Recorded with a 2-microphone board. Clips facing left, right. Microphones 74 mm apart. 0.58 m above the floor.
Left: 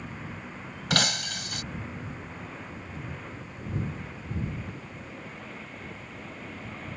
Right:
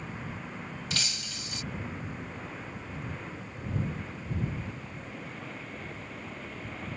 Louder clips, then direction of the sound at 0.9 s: Left 14 dB; 65° left (ahead or behind).